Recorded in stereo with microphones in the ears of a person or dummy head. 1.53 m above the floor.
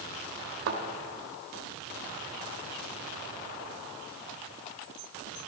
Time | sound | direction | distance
0.7 | a thud | 60° right (ahead or behind) | 2.5 m